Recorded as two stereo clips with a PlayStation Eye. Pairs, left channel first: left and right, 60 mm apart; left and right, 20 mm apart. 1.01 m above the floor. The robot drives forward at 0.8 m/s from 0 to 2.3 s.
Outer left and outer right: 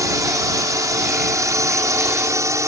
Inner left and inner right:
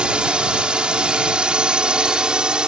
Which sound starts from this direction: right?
A drone, at 0.0 s.